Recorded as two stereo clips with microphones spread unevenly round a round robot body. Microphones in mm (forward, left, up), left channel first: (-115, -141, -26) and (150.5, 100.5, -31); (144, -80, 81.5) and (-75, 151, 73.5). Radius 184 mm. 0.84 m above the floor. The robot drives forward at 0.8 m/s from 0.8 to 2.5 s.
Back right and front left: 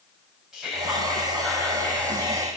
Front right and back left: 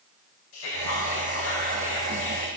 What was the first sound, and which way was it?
Whispering, 45° right.